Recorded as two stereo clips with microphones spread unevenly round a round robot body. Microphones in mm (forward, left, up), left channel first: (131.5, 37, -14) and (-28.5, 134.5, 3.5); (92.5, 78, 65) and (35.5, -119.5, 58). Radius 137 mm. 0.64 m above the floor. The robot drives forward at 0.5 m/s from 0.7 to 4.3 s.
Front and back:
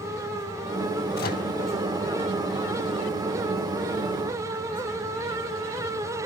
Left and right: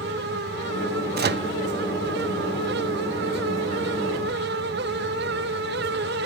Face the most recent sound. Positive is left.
turn(degrees=-150)